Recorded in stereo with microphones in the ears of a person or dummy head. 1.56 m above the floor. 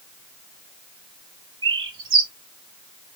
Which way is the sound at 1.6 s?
25° right (ahead or behind).